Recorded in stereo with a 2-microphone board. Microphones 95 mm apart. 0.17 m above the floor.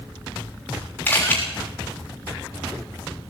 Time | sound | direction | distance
1.1 | a camera shutter | 20° left (ahead or behind) | 6 m